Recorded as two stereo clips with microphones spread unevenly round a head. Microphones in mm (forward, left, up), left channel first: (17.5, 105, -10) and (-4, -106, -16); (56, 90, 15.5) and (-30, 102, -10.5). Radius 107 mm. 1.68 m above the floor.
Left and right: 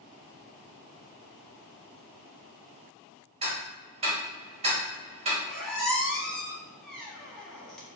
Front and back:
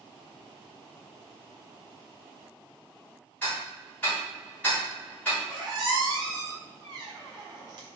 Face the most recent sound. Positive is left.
turn(degrees=165)